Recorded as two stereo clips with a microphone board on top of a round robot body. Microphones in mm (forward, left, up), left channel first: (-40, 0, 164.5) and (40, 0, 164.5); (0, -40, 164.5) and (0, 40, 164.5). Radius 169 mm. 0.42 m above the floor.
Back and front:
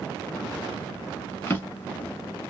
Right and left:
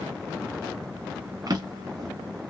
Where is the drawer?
120° left, 1.0 m.